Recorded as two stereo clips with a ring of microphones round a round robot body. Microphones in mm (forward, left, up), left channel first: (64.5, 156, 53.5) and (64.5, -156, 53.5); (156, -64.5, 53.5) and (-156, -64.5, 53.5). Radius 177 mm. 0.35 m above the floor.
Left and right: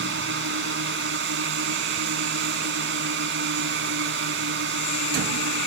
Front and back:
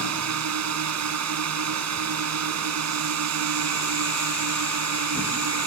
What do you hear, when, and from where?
0.0 s a drone: 145° right